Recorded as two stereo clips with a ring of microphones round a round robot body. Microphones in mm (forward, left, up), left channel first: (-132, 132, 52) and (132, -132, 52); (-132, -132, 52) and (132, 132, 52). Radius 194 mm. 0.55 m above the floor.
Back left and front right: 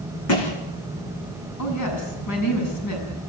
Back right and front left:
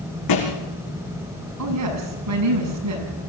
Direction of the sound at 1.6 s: 90° left.